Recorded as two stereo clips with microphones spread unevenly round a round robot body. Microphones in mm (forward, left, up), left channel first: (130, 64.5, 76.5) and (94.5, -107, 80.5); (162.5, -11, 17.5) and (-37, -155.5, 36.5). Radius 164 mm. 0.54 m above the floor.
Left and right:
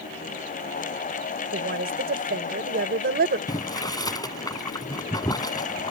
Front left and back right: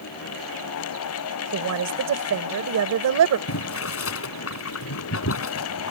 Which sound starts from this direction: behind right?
A woman speaking, at 1.5 s.